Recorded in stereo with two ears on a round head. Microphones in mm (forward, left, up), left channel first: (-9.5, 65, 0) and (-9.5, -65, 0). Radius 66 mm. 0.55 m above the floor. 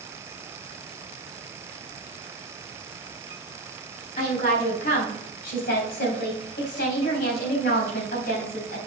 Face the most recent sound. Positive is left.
turn(degrees=65)  # may be behind; listen again after turning